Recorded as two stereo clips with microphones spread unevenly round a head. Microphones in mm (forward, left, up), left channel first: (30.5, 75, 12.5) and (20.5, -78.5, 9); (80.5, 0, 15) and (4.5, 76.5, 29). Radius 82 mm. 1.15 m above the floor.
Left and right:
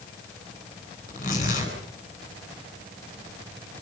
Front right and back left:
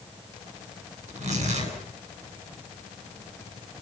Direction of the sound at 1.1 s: 130° left.